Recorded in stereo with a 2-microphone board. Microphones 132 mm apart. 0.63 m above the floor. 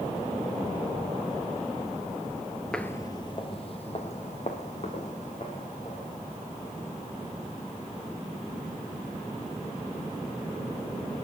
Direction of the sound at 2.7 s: 5° left (ahead or behind).